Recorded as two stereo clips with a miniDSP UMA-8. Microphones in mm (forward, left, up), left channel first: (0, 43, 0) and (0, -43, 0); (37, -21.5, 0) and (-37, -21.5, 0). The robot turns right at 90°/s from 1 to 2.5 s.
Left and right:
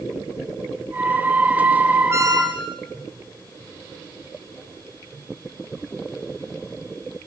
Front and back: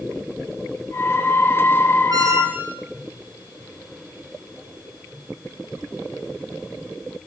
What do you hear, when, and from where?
2.1 s a squeak: 150° right, 3.5 m; by 2.8 s 115° right, 3.5 m